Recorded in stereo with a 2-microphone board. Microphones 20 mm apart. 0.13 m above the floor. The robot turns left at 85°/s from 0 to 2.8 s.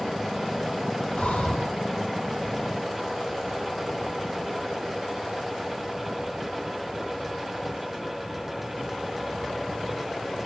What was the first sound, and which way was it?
Breathing, 105° left.